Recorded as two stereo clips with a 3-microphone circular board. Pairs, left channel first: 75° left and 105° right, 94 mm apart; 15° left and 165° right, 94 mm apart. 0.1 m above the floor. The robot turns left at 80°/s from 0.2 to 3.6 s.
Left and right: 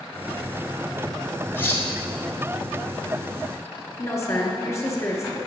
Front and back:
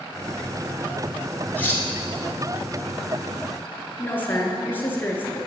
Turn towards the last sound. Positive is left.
turn(degrees=60)